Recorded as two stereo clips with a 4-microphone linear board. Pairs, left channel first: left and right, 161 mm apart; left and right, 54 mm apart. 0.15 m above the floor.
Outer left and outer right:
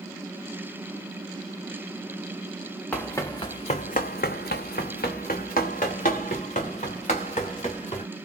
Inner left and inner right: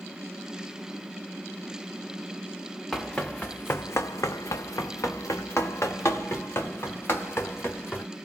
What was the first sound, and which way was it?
Running footsteps, 10° left (ahead or behind).